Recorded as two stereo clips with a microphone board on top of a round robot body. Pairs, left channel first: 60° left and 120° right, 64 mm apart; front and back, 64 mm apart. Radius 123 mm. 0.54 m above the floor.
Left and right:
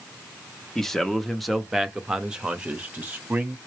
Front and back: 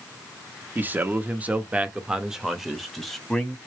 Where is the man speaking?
140° left, 1.2 m; by 3.6 s 70° right, 1.2 m.